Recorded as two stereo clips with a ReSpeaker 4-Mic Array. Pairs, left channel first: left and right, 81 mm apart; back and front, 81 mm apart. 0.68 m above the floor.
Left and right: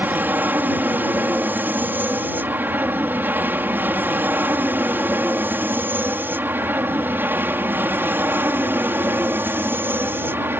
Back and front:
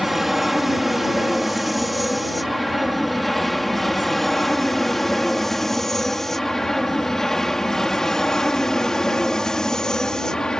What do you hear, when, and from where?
0.0 s an aircraft: 85° right; by 10.6 s 105° right